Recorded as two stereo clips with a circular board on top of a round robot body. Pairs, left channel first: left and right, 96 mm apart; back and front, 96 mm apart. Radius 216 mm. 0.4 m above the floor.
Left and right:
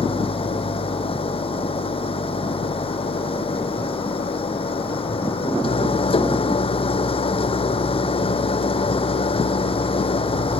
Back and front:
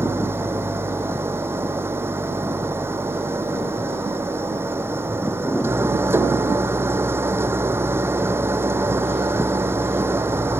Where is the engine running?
65° left.